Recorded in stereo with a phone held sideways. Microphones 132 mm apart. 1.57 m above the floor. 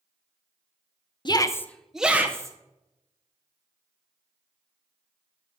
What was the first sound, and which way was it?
A shout, 40° left (ahead or behind).